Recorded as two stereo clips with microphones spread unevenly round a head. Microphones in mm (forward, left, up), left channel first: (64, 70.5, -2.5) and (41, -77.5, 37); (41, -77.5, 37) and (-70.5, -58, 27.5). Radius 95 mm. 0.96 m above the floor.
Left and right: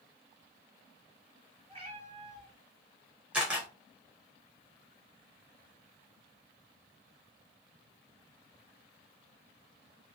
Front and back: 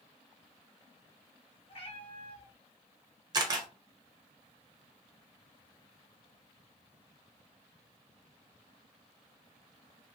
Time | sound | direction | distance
1.7 | a cat meowing | 45° right | 1.5 m
3.3 | a camera shutter | 155° right | 0.8 m